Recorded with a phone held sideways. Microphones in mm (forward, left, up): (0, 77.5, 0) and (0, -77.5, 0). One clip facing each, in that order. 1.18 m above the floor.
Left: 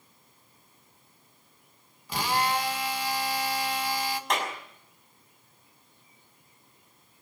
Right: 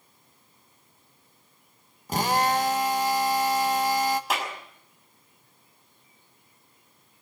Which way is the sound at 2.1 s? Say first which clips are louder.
Right 4 dB; 40° right (ahead or behind).